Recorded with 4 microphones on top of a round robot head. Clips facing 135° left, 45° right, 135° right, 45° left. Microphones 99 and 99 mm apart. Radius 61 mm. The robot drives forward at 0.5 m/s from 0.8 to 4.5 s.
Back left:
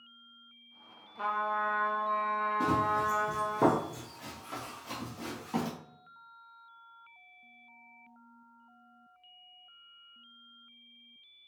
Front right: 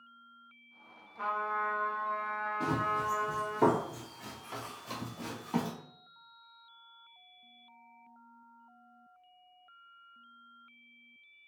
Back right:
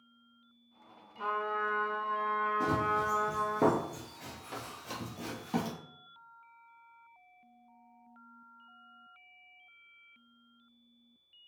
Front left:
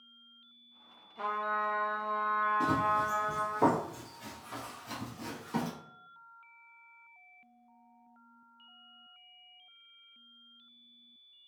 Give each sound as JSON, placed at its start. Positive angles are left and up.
{"t": 1.2, "sound": "a trumpet", "azimuth_deg": 55, "distance_m": 1.0}
{"t": 2.6, "sound": "running footsteps", "azimuth_deg": 110, "distance_m": 1.2}